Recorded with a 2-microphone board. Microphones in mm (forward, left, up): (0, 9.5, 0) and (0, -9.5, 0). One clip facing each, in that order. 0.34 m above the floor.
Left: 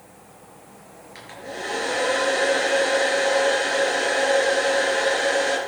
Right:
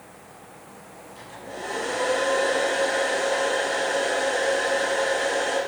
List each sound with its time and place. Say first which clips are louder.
1.1 s a hair dryer: left 3 dB; 45° left (ahead or behind), 4.5 m